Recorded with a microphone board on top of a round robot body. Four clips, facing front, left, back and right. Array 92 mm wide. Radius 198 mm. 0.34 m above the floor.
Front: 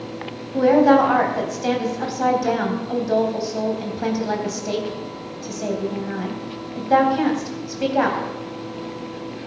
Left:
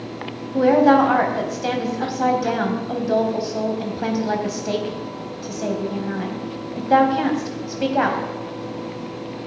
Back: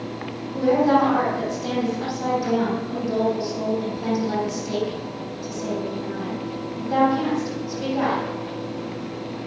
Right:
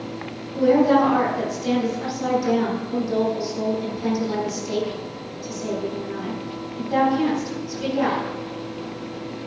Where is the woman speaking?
55° left, 4 m.